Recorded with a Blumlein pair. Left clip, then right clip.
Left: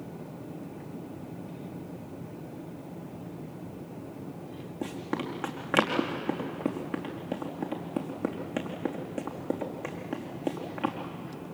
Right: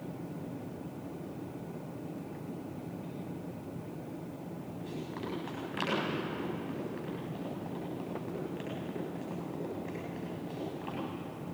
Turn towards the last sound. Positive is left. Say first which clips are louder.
# left 8 dB
turn(degrees=45)